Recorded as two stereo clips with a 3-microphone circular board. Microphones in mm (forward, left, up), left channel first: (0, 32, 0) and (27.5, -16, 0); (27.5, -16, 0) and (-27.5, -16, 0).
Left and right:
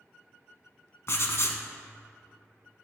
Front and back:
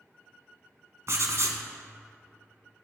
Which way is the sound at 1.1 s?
155° left.